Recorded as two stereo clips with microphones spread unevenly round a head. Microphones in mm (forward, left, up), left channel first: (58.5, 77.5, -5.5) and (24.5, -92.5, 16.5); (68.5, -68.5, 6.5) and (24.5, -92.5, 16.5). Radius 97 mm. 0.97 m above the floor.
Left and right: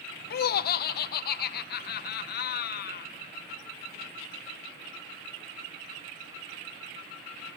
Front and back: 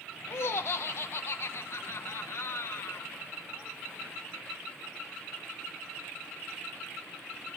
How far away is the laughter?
About 0.6 m.